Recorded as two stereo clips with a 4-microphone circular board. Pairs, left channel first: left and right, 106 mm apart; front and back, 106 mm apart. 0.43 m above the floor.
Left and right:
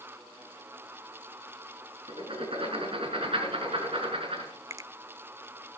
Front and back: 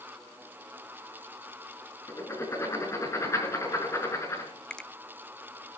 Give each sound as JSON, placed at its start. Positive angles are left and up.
{"t": 2.1, "sound": "writing", "azimuth_deg": -60, "distance_m": 5.0}
{"t": 4.7, "sound": "a finger snap", "azimuth_deg": -75, "distance_m": 0.6}